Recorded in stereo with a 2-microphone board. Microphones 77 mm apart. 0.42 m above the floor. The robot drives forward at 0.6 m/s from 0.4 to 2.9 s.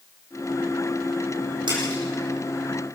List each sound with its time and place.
1.7 s a splash: 75° right (ahead or behind), 8.5 m